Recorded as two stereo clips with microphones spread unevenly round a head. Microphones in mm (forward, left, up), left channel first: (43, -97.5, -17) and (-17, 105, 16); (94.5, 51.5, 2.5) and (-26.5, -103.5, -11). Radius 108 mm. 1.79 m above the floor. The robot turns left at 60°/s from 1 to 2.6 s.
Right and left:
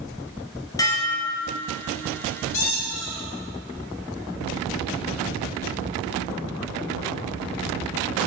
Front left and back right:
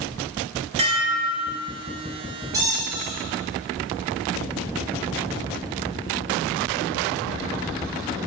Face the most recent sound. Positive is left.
turn(degrees=-55)